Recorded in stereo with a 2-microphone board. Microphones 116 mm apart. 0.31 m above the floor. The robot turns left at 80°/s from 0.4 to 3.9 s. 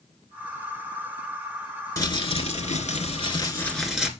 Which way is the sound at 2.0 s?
150° left.